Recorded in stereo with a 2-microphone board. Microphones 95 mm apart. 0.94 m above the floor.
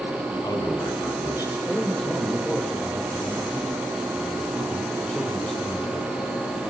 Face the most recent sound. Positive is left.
turn(degrees=5)  # may be behind; listen again after turning